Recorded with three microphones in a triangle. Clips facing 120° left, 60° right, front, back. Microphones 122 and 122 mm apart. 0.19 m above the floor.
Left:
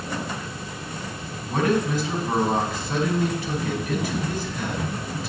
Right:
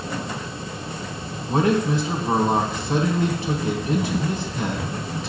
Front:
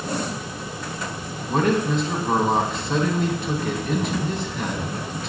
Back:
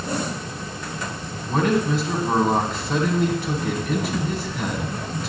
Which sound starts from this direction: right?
A man speaking, at 1.5 s.